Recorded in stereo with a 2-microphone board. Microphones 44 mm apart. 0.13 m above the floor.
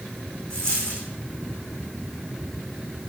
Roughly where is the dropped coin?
Left.